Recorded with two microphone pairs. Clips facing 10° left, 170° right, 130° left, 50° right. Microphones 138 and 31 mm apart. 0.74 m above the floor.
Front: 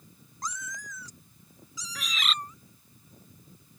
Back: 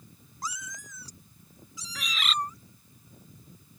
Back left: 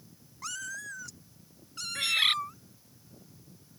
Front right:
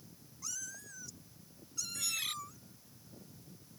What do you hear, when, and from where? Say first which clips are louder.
0.4 s a cat meowing: front 1 dB, back left 8 dB; 105° left; by 2.6 s 175° left
1.9 s a bird: even, back left 14 dB; 100° left